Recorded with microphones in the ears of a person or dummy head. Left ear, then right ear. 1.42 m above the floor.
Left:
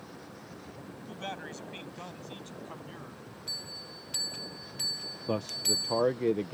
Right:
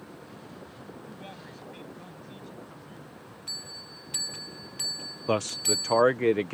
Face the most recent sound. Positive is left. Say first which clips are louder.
# right 4 dB
turn(degrees=-55)  # may be behind; listen again after turning